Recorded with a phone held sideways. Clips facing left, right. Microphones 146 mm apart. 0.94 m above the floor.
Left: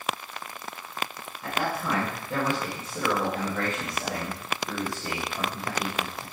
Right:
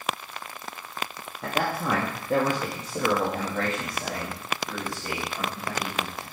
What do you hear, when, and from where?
1.4 s a man speaking: 75° right (ahead or behind), 1.7 m; by 6.2 s 35° left (ahead or behind), 3 m